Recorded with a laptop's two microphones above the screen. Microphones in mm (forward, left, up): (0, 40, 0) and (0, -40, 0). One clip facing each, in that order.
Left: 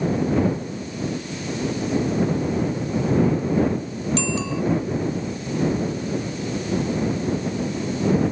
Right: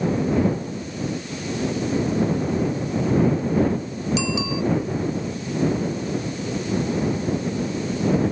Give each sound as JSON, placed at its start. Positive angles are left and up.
{"t": 4.2, "sound": "a bicycle bell", "side_deg": -5}